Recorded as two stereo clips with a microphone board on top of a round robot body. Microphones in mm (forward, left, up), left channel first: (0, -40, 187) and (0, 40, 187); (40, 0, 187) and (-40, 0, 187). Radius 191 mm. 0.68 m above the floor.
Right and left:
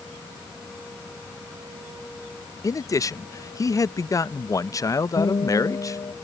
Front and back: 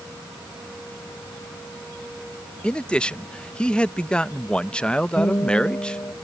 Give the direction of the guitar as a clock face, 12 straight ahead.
2 o'clock.